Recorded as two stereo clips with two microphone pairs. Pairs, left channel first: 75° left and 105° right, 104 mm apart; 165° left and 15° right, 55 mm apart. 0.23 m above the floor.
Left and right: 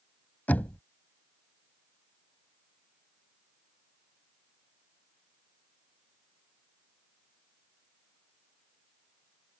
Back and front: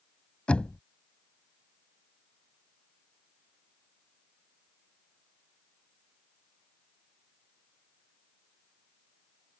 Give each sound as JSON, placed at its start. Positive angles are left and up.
{"t": 0.5, "sound": "knocking", "azimuth_deg": 125}